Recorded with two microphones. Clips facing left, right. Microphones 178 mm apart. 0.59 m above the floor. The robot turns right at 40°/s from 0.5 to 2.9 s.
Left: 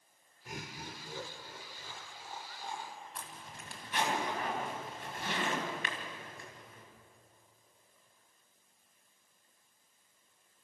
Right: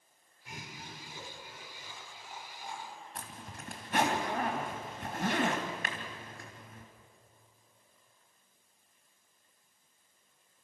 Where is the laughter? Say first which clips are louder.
Left 3 dB; 50° left (ahead or behind), 2.5 m; by 3.0 s 20° left (ahead or behind), 2.5 m.